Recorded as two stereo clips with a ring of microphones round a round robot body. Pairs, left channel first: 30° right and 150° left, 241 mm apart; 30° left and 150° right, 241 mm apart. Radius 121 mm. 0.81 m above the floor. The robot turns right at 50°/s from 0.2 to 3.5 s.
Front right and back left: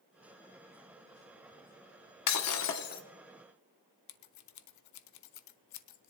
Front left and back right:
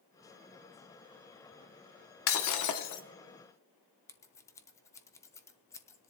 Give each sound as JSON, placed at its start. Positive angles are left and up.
{"t": 2.3, "sound": "breaking glass", "azimuth_deg": -10, "distance_m": 1.0}
{"t": 4.1, "sound": "scissors", "azimuth_deg": -50, "distance_m": 0.6}